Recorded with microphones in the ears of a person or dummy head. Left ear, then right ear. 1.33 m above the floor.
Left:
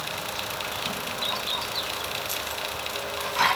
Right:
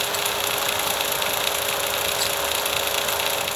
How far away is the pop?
No pop in this recording.